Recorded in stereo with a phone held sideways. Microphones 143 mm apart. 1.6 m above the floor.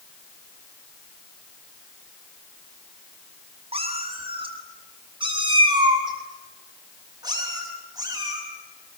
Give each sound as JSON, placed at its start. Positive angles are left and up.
{"t": 3.7, "sound": "a cat meowing", "side_deg": -40, "distance_m": 6.0}